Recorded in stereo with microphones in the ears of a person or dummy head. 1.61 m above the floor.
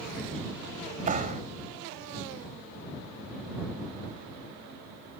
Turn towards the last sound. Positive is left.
turn(degrees=-40)  # may be behind; listen again after turning